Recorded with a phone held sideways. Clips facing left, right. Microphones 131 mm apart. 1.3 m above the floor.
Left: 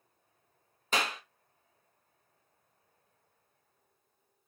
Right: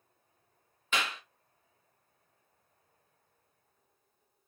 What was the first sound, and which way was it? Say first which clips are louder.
A clap: left 2 dB; 40° left (ahead or behind).